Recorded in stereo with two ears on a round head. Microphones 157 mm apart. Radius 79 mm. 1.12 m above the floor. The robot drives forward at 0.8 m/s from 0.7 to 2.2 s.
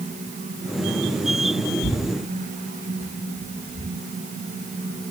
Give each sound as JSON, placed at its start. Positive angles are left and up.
{"t": 1.8, "sound": "tearing paper", "side_deg": 20, "distance_m": 2.5}